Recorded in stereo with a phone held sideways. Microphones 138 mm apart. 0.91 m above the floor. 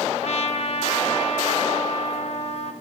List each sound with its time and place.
0.2 s a trumpet: 55° left (ahead or behind), 0.7 m